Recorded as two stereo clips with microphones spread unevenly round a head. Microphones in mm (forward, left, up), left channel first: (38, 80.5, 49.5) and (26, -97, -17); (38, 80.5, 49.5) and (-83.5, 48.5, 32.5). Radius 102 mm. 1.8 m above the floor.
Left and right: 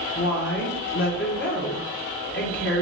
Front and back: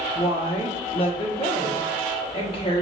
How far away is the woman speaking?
About 2 m.